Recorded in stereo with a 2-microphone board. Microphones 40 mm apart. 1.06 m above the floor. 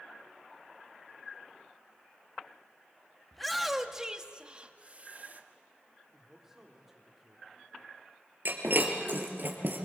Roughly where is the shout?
Centre.